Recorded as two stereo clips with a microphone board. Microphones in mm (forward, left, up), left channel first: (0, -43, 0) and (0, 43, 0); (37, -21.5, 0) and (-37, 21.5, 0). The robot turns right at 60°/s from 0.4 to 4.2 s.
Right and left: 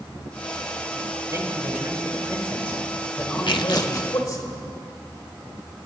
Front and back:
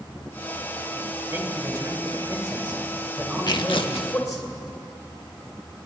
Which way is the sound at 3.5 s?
65° right.